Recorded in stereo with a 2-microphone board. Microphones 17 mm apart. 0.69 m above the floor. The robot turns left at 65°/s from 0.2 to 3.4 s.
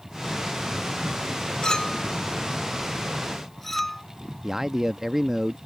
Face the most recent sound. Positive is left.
turn(degrees=-20)  # may be behind; listen again after turning